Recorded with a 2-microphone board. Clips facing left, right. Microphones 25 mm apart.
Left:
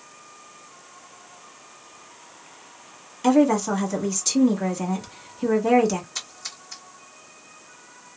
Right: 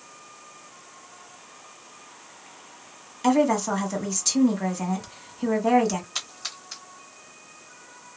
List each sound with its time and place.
3.2 s a woman speaking: 5° right (ahead or behind), 1.1 m
6.2 s a splash: 40° right (ahead or behind), 2 m